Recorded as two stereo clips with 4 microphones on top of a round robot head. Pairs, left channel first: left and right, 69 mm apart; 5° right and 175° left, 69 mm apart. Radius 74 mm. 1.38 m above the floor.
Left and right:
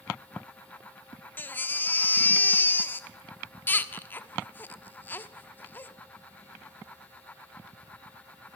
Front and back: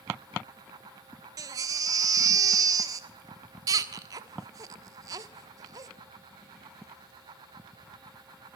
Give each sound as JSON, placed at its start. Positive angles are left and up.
{"t": 1.4, "sound": "a baby crying", "azimuth_deg": 150, "distance_m": 1.3}